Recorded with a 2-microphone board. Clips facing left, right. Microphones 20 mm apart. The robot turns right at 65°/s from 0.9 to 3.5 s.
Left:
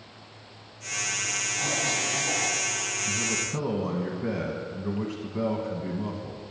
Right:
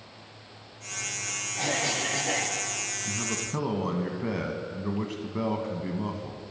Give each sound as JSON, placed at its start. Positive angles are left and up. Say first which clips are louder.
{"t": 1.6, "sound": "a cough", "louder": "right 2 dB", "azimuth_deg": -145, "distance_m": 2.5}
{"t": 3.0, "sound": "a man speaking", "louder": "left 3 dB", "side_deg": -20, "distance_m": 1.2}